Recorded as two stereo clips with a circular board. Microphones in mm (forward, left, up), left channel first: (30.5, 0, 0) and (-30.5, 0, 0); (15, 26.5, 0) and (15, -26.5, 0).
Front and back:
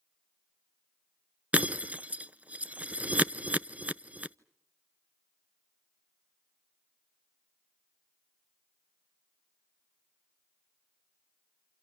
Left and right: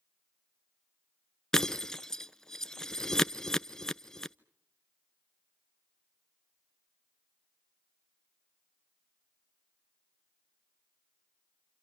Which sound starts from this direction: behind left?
Breaking glass, at 1.5 s.